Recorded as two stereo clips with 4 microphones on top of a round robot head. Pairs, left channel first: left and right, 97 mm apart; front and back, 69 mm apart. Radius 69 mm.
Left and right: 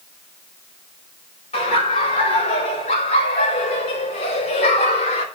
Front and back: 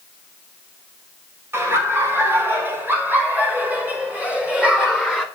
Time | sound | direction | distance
1.5 | laughter | 125° left | 5.5 m